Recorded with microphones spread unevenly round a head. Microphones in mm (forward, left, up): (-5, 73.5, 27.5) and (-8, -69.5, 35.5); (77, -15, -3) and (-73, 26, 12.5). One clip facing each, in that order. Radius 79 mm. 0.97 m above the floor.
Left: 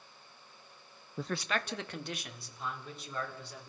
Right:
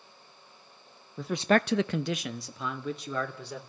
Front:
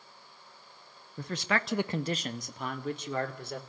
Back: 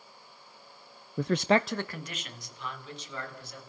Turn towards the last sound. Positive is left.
turn(degrees=-55)